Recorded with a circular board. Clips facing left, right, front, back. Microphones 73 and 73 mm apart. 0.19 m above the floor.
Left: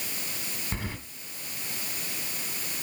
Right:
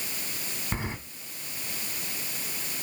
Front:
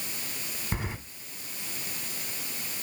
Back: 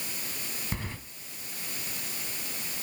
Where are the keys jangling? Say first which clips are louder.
Right 3 dB, front 4 dB; 50° right, 0.8 m.